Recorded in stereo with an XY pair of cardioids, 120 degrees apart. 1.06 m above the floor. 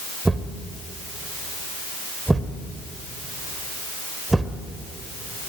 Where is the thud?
10° right, 2 m.